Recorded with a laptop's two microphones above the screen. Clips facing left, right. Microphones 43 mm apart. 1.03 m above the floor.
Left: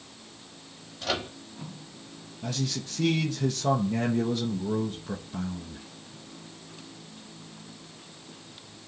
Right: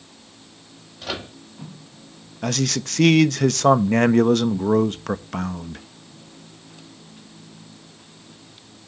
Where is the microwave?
5° right (ahead or behind), 1.6 m.